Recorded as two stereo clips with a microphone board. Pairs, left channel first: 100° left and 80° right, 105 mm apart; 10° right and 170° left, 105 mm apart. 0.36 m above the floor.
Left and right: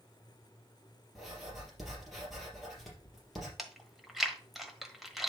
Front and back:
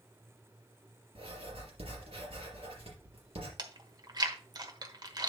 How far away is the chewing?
About 1.2 m.